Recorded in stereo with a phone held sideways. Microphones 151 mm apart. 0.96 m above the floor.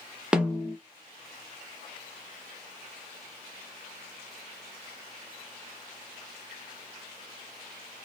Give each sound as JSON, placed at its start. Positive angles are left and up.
{"t": 0.3, "sound": "a snare drum", "side_deg": -5, "distance_m": 0.6}